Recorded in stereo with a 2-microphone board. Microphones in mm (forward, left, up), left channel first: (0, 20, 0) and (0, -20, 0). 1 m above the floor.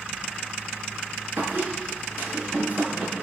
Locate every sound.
1.4 s a squeak: 75° right (ahead or behind), 6 m